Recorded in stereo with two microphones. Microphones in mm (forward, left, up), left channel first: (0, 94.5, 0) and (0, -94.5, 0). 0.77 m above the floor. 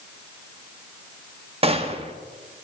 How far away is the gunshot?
About 0.8 m.